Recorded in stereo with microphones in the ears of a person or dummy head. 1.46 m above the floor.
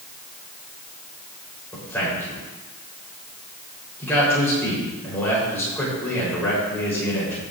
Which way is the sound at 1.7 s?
15° left (ahead or behind).